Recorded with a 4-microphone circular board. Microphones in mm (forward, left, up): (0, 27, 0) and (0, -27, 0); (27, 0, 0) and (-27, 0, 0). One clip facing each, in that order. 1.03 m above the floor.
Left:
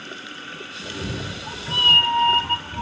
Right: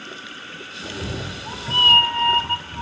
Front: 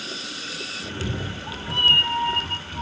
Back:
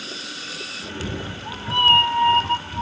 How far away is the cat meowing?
About 1.4 m.